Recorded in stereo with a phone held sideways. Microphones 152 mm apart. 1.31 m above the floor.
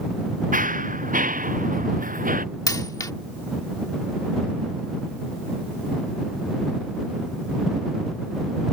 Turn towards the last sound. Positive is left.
turn(degrees=25)  # may be behind; listen again after turning